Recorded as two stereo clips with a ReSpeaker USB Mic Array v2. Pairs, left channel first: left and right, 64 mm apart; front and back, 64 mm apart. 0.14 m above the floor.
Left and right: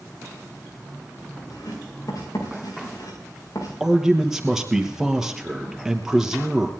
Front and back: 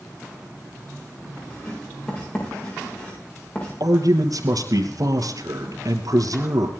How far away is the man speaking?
About 2.5 m.